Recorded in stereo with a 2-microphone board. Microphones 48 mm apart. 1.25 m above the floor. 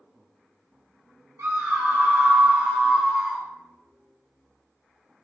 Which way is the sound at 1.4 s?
65° right (ahead or behind).